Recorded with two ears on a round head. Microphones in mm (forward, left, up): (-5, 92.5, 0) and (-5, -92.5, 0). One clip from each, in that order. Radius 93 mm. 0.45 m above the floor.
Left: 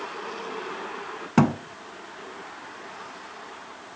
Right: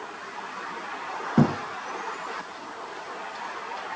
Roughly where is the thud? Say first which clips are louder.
Left 2 dB; left.